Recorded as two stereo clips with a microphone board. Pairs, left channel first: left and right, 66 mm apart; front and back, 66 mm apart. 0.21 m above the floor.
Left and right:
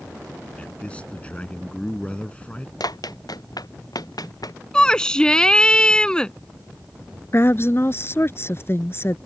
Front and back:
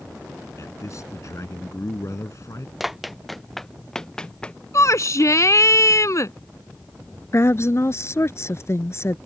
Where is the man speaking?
25° left.